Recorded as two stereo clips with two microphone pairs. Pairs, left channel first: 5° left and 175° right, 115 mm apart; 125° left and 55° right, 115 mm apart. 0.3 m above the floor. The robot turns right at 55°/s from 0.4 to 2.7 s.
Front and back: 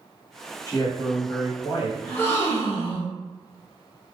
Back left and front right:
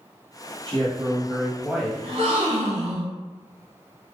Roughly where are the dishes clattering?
I don't hear dishes clattering.